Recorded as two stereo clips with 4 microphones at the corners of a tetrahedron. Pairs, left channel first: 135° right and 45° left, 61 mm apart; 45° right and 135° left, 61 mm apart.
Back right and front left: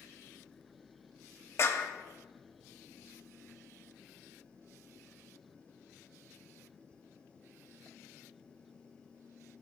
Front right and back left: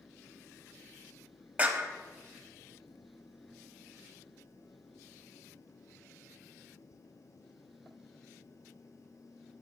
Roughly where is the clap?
Behind.